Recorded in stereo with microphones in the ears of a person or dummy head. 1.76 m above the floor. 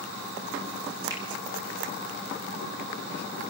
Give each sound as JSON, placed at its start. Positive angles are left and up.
{"t": 1.1, "sound": "a finger snap", "side_deg": -20, "distance_m": 6.5}